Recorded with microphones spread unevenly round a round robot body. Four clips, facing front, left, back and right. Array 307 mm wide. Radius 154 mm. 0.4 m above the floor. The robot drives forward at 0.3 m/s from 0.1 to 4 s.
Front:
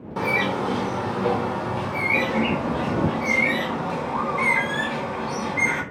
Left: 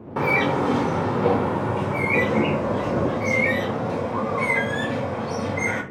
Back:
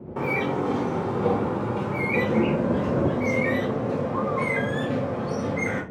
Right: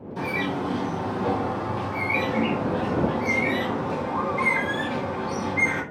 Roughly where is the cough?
I don't hear a cough.